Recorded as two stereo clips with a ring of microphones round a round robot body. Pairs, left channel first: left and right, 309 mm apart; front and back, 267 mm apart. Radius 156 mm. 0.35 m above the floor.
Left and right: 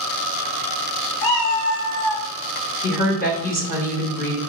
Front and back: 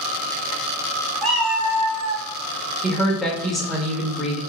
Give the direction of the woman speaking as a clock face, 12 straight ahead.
9 o'clock.